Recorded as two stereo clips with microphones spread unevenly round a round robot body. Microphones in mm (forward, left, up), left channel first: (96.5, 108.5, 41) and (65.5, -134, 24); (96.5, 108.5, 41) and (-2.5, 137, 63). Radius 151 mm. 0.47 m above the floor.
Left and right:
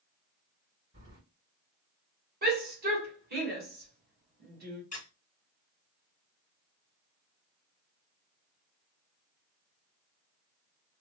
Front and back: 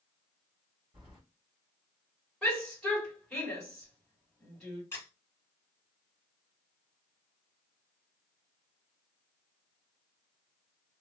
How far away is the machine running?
No machine running in this recording.